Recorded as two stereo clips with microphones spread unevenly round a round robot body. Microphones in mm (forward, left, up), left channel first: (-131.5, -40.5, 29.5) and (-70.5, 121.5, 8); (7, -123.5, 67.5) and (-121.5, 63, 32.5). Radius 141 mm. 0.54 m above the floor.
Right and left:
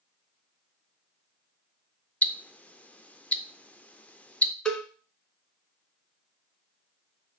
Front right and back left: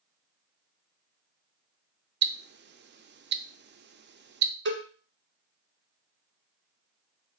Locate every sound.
2.2 s ticking: 165° left, 0.6 m
4.7 s a cowbell: 165° left, 1.2 m